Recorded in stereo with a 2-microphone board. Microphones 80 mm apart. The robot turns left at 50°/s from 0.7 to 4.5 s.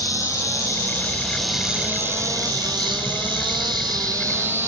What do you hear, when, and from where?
0.0 s an insect: 40° left, 1.2 m; by 4.7 s 150° right, 1.2 m